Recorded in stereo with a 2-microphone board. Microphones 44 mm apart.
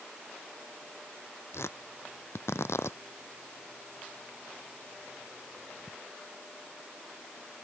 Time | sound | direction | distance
1.5 | tearing paper | 80° left | ?